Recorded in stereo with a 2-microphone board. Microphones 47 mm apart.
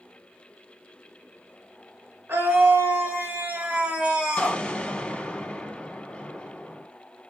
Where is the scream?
60° right (ahead or behind), 1.8 m; by 4.6 s 5° right (ahead or behind), 1.2 m.